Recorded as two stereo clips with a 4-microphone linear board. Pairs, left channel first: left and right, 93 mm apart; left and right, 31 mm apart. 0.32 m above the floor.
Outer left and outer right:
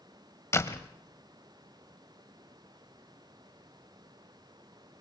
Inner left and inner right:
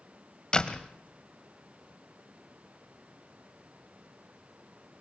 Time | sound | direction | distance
0.5 | a door slam | 30° left (ahead or behind) | 1.1 m